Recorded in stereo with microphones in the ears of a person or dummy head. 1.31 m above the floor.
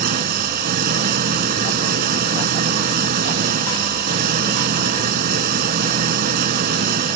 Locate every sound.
0.0 s an engine running: 55° right (ahead or behind)